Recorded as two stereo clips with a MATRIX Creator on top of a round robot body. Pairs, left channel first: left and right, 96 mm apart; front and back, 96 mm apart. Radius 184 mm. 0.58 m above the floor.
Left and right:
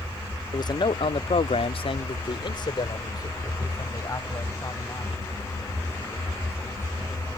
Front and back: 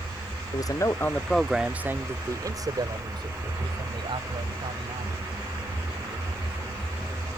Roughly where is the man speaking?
Ahead left.